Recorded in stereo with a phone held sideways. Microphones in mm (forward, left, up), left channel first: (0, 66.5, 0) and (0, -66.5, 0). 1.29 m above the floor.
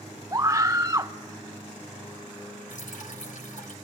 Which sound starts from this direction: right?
A scream, at 0.3 s.